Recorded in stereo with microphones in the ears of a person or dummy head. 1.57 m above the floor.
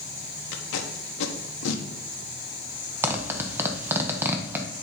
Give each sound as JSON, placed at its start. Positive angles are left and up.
{"t": 0.5, "sound": "tape being pulled", "side_deg": 60, "distance_m": 1.0}
{"t": 3.0, "sound": "a zipper", "side_deg": -15, "distance_m": 1.0}